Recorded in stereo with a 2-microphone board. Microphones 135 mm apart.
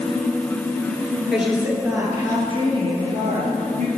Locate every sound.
1.3 s a woman speaking: centre (ahead or behind), 2.5 m; by 3.9 s 60° right (ahead or behind), 3 m